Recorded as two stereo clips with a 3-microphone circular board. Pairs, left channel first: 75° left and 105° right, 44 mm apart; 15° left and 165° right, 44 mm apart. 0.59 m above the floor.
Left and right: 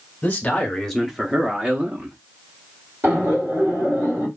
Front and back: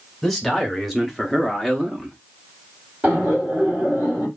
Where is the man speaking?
105° left, 0.7 m; by 2.2 s 80° right, 0.9 m.